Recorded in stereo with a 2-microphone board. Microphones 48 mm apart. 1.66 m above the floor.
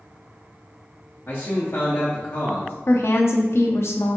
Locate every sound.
1.3 s a man speaking: 45° left (ahead or behind), 0.7 m
2.9 s a woman speaking: 65° left (ahead or behind), 0.6 m